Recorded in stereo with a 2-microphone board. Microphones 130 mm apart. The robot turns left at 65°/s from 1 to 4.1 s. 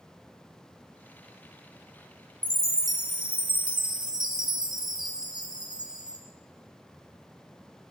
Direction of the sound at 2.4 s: 20° right.